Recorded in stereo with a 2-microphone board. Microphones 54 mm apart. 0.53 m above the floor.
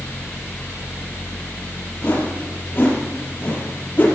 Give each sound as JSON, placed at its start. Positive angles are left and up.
{"t": 2.0, "sound": "a whoosh", "side_deg": 35, "distance_m": 5.0}